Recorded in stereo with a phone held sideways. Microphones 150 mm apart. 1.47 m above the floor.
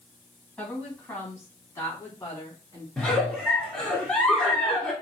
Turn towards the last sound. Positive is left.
turn(degrees=10)  # may be behind; listen again after turning